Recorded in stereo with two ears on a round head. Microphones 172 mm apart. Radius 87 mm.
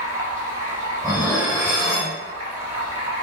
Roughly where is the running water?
Right.